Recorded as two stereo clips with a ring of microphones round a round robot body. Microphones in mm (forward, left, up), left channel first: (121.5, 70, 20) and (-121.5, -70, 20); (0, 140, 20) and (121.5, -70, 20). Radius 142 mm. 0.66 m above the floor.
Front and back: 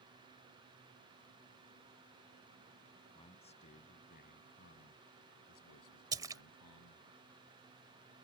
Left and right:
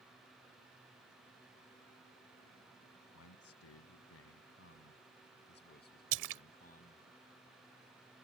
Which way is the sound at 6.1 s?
70° right.